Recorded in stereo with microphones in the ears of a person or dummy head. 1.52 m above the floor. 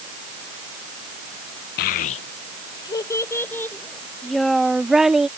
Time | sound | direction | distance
1.8 | a child speaking | 45° left (ahead or behind) | ?